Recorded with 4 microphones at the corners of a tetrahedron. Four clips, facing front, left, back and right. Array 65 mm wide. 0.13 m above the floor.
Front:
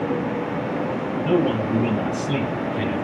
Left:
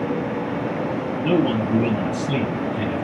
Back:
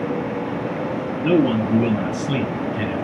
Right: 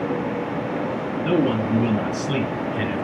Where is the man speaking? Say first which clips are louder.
Left 1 dB, back 3 dB; straight behind, 2.5 m; by 3.0 s 105° right, 1.8 m.